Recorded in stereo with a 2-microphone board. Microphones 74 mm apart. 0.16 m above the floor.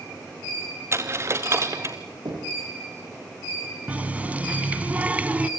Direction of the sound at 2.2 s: 60° right (ahead or behind).